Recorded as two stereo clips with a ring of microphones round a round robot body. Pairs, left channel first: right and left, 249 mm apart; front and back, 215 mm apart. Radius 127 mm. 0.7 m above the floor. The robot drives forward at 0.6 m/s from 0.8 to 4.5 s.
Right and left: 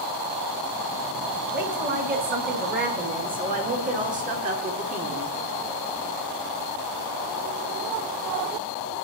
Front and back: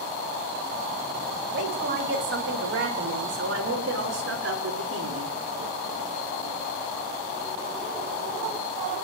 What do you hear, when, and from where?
1.5 s a woman speaking: 145° left, 5.5 m; by 5.4 s 150° left, 7 m